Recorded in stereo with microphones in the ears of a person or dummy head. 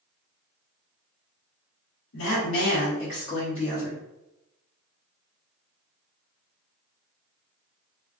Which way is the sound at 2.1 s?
80° left.